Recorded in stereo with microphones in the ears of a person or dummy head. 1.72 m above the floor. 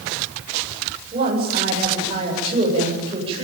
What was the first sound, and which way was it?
A woman speaking, 30° right (ahead or behind).